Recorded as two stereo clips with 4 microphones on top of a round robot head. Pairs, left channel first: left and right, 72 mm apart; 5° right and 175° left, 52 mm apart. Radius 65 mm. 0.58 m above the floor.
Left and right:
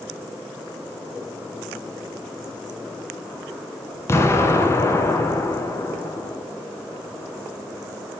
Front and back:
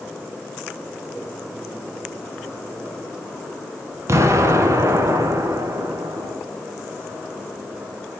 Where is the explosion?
145° left, 1.3 m.